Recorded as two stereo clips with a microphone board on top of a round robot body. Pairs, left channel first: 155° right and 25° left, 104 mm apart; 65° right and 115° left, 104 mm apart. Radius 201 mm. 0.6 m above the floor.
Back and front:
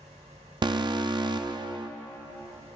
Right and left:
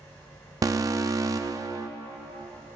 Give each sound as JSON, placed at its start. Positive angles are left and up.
{"t": 0.6, "sound": "an alarm", "azimuth_deg": 60, "distance_m": 0.6}